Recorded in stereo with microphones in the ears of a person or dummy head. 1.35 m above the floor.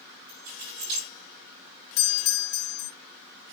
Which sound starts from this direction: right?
Keys jangling, at 0.3 s.